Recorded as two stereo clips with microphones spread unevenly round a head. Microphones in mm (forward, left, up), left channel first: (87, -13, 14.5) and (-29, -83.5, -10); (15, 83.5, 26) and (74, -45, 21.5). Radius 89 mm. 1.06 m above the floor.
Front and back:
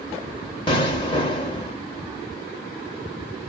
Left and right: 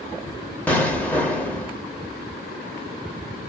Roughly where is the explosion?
Ahead left.